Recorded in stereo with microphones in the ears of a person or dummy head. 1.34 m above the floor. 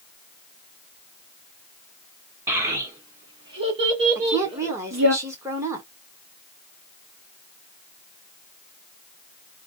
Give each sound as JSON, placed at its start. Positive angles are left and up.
{"t": 2.5, "sound": "a child speaking", "side_deg": -15, "distance_m": 1.8}
{"t": 4.2, "sound": "a woman speaking", "side_deg": -15, "distance_m": 1.4}